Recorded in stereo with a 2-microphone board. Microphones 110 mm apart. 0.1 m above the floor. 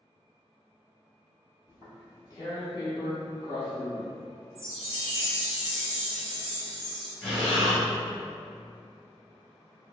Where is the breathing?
10° left (ahead or behind), 1.1 m.